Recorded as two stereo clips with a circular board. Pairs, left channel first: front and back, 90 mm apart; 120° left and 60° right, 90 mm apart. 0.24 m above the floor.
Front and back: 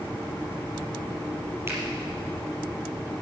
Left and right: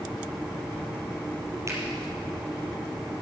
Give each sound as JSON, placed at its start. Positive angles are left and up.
{"t": 1.7, "sound": "a finger snap", "azimuth_deg": -115, "distance_m": 5.0}